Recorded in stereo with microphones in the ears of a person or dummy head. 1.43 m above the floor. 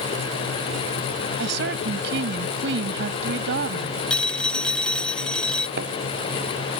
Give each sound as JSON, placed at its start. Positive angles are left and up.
{"t": 1.4, "sound": "a woman speaking", "side_deg": -65}
{"t": 4.1, "sound": "a phone ringing", "side_deg": 5}
{"t": 5.8, "sound": "a thud", "side_deg": -65}